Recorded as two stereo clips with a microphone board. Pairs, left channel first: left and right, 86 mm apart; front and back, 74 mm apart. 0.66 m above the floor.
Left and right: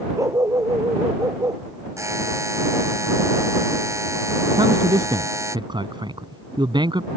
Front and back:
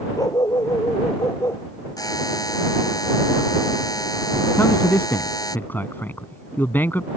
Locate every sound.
0.2 s a dog barking: 40° right; by 1.6 s 45° right
2.0 s a buzzer: 35° right
4.6 s a man speaking: 65° right